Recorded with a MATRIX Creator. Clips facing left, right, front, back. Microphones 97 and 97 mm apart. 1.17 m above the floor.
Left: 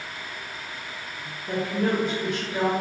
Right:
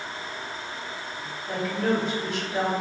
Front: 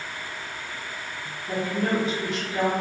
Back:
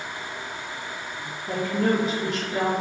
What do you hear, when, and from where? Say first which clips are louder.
1.5 s a woman speaking: left 1 dB, back 2 dB; 130° left, 1.7 m